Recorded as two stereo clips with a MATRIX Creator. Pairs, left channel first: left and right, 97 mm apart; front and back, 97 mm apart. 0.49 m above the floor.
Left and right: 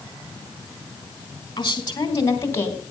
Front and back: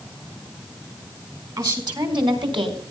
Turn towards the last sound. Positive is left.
turn(degrees=155)